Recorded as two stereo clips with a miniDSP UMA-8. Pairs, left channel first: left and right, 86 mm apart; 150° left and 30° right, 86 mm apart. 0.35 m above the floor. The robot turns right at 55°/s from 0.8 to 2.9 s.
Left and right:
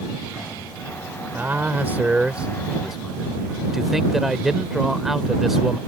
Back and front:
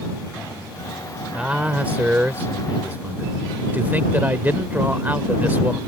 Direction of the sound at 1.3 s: 95° right.